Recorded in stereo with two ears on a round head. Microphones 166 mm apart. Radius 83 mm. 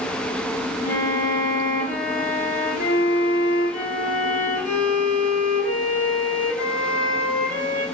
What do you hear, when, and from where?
0.8 s a violin: 45° left (ahead or behind), 3 m